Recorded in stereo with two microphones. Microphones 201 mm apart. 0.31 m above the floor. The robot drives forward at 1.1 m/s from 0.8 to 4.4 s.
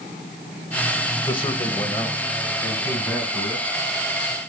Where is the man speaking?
25° left (ahead or behind), 1.2 m; by 3.7 s 10° left (ahead or behind), 3 m.